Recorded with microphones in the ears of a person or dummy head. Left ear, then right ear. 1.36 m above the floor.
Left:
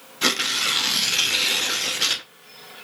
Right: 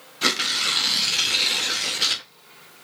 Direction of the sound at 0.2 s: Centre (ahead or behind).